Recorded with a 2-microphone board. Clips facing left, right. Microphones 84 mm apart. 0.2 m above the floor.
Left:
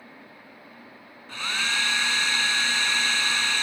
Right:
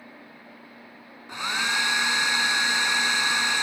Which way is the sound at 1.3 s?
20° right (ahead or behind).